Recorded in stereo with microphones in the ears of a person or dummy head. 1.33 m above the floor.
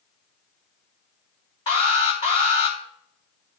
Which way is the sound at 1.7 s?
30° left (ahead or behind).